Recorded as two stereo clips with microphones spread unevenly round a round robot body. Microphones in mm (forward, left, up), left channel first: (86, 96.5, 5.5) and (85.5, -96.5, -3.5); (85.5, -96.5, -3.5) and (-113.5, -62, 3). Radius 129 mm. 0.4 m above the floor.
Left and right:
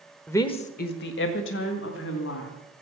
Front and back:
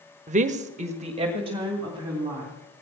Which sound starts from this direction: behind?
A woman speaking, at 0.3 s.